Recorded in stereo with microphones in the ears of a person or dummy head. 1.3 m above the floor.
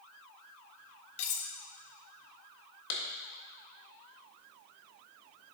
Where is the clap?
85° left, 1.7 m.